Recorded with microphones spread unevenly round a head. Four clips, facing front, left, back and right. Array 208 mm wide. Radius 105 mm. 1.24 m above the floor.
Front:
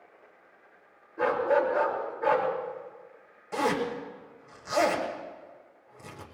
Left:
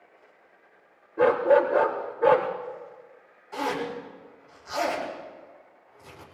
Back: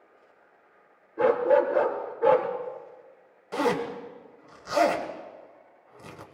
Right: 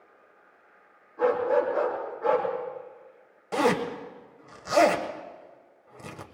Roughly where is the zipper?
Right.